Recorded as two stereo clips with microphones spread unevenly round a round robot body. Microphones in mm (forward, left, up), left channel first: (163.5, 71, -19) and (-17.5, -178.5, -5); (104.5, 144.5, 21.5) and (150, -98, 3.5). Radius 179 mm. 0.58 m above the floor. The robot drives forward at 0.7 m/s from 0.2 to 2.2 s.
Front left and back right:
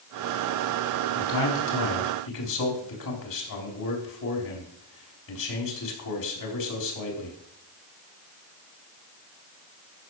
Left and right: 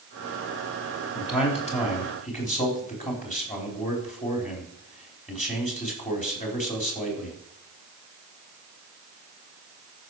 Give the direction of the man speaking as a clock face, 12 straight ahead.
11 o'clock.